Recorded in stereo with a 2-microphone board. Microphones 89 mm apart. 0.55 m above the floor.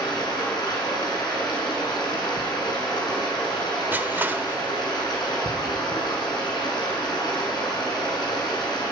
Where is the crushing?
20° right (ahead or behind), 1.0 m.